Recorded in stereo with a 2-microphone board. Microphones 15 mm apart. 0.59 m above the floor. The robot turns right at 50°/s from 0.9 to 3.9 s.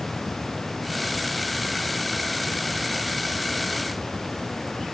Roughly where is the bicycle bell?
No bicycle bell in this recording.